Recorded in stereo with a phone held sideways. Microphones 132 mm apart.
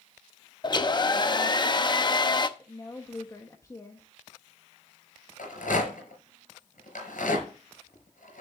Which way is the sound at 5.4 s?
75° left (ahead or behind).